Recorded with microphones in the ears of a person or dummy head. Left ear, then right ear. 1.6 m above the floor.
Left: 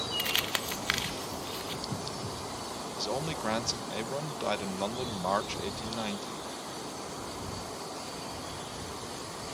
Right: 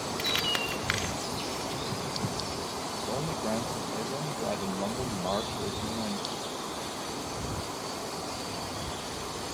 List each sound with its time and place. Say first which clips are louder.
0.2 s crumpling: right 4 dB; 20° left (ahead or behind)
3.0 s a man speaking: left 2 dB; 50° left (ahead or behind)